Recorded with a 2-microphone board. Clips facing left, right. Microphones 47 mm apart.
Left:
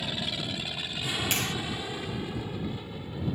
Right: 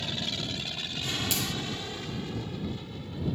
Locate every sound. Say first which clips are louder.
0.0 s an aircraft: left 1 dB; 5° left (ahead or behind); by 3.4 s 10° left (ahead or behind)
1.3 s a clap: left 2 dB; 45° left (ahead or behind)